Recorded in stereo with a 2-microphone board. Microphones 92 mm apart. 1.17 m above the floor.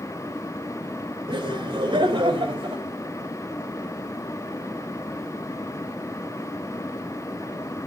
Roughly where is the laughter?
Right.